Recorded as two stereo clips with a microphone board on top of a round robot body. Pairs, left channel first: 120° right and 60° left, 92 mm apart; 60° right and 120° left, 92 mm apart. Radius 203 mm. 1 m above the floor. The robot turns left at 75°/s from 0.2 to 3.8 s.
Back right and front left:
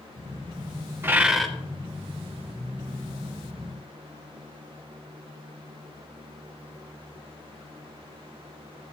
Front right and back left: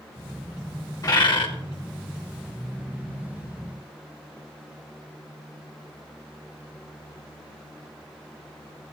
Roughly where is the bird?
Ahead.